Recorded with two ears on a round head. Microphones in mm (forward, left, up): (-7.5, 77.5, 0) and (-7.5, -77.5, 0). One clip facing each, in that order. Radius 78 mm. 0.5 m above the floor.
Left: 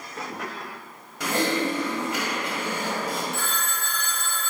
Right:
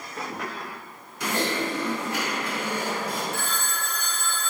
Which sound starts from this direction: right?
A phone ringing, at 3.3 s.